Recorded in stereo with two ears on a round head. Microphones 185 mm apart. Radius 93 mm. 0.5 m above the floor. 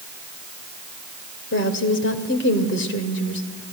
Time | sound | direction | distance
1.5 | a woman speaking | 60° left (ahead or behind) | 2 m